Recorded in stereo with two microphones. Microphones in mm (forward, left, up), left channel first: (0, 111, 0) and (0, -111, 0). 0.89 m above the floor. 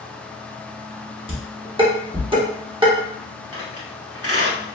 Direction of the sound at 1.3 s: 20° right (ahead or behind).